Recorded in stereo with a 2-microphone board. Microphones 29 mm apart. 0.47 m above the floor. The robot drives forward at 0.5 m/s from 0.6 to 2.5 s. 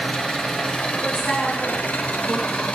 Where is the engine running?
40° left (ahead or behind), 0.8 m; by 2.8 s 55° left (ahead or behind), 0.6 m.